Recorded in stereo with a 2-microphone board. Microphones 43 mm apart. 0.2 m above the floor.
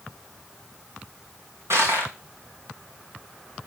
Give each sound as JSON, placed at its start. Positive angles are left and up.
{"t": 1.7, "sound": "crushing", "side_deg": -90, "distance_m": 3.0}